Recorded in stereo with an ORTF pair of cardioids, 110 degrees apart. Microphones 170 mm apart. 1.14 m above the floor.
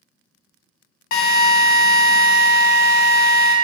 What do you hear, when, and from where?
1.1 s a drill: 60° left, 0.7 m